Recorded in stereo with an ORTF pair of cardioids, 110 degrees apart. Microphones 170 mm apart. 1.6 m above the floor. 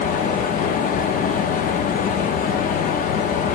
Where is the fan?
55° left, 0.7 m.